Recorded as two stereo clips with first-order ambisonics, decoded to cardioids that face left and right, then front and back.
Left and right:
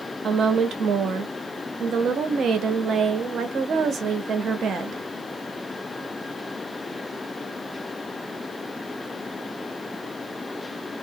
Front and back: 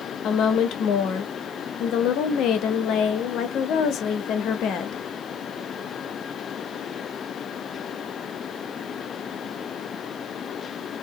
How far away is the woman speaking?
About 0.6 m.